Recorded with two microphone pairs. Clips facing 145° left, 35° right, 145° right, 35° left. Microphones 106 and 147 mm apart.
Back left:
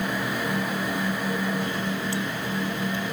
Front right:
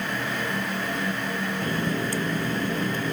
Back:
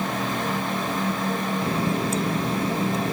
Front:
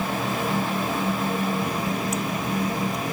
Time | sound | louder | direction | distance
1.6 | a running tap | front right 2 dB, back 2 dB | 85° right | ?